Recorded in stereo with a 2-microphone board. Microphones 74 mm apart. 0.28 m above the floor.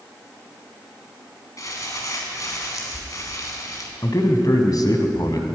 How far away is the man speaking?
About 2.0 m.